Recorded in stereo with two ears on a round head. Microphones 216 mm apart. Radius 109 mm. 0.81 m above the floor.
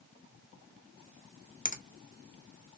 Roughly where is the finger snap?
Left.